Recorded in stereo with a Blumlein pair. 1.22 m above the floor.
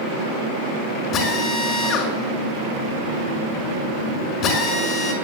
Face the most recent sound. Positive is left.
turn(degrees=35)